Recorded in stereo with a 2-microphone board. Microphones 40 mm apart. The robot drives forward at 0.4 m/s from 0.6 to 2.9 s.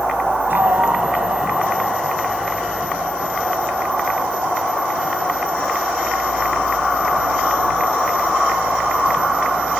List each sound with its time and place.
0.5 s a sliding door: 60° right (ahead or behind); by 2.0 s 65° right (ahead or behind)